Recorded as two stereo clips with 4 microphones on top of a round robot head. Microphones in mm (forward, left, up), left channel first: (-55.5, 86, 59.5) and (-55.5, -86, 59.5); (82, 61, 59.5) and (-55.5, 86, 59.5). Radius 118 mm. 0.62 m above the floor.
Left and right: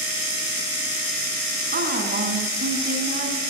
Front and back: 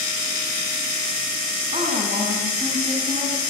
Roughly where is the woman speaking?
Behind right.